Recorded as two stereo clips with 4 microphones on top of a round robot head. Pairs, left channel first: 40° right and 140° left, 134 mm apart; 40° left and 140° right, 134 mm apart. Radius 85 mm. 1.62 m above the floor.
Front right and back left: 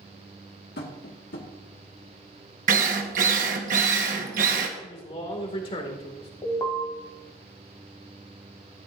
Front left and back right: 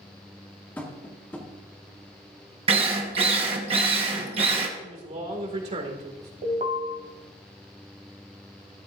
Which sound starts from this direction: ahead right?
Tapping, at 0.8 s.